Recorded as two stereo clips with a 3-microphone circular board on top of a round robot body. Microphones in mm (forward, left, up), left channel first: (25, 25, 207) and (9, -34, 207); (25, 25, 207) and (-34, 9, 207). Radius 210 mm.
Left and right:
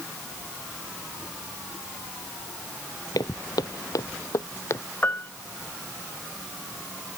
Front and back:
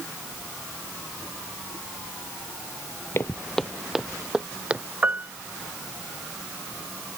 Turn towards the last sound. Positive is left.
turn(degrees=135)